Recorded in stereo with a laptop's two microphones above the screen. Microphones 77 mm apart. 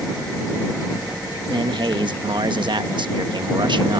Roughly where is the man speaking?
Right.